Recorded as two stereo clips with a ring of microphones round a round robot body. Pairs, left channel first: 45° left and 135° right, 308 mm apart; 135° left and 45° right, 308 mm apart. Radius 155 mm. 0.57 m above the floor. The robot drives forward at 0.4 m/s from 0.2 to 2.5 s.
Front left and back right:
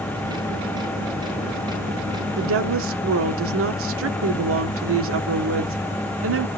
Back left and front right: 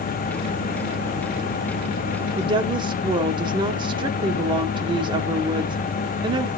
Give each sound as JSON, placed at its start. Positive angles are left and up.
{"t": 2.4, "sound": "a woman speaking", "azimuth_deg": -110, "distance_m": 1.6}